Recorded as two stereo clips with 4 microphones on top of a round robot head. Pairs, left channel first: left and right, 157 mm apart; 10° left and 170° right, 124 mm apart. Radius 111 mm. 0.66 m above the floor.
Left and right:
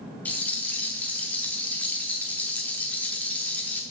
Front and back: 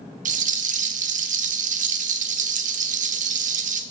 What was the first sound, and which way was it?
A rattle, 175° left.